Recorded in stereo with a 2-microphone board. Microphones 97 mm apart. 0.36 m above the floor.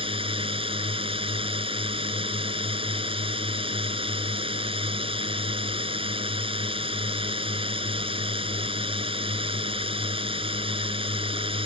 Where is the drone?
70° right (ahead or behind).